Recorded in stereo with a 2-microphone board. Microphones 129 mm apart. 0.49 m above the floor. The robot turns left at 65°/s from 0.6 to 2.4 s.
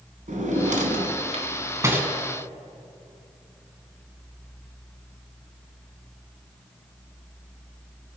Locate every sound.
0.3 s a drawer: 75° right (ahead or behind), 1.3 m; by 2.1 s 10° right (ahead or behind), 1.3 m